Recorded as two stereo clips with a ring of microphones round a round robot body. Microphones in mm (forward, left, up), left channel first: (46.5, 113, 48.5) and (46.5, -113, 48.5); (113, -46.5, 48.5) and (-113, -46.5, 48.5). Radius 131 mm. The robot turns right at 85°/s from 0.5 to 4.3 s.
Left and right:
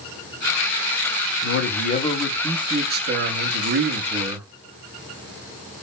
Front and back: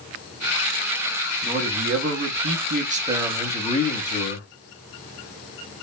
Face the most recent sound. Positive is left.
turn(degrees=-10)